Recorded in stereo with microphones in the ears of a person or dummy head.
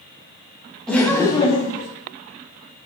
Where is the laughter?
Centre (ahead or behind), 0.8 m; by 1.9 s 55° left (ahead or behind), 0.7 m.